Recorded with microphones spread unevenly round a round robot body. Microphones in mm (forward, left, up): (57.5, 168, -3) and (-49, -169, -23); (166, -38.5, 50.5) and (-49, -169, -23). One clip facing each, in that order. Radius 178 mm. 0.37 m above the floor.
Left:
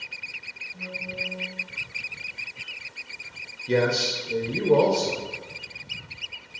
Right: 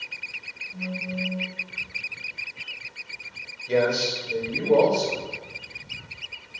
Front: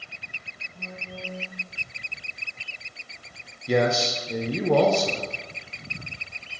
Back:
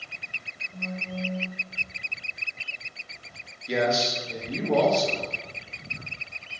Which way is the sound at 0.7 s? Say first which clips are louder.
Right 6 dB, back 6 dB; 120° right.